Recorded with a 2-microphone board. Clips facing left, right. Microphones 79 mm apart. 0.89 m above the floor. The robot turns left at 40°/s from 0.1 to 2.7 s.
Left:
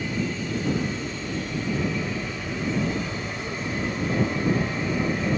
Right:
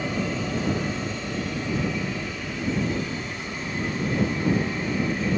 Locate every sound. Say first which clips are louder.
0.0 s an aircraft: right 1 dB; 100° right; by 5.4 s 160° left